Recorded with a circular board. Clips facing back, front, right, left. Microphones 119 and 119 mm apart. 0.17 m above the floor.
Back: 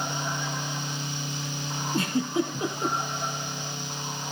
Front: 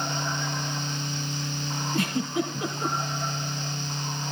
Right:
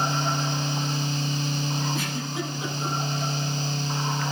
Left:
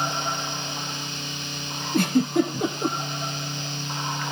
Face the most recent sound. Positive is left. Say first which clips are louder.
# back 1 dB, left 10 dB
turn(degrees=120)